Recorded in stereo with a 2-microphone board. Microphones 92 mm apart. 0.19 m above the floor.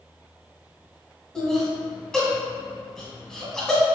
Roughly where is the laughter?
Centre.